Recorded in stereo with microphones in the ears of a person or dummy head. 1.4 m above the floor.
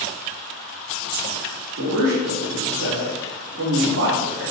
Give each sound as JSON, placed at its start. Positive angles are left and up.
{"t": 1.8, "sound": "a man speaking", "side_deg": -80, "distance_m": 1.6}